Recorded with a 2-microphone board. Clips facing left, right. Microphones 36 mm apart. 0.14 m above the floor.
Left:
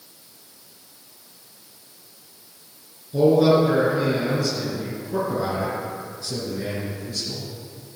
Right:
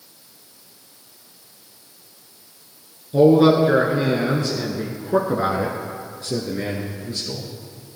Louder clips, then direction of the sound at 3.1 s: Right 3 dB; 25° right (ahead or behind).